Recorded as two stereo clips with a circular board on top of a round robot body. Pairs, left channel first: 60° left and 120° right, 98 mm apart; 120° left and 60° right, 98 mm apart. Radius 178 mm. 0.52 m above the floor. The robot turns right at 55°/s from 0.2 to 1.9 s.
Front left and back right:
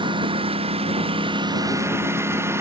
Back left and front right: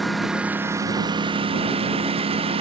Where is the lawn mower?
150° right; by 2.6 s 55° right.